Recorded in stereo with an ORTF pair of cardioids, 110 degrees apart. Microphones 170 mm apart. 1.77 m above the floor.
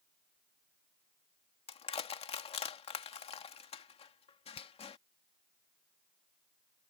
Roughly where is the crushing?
Ahead left.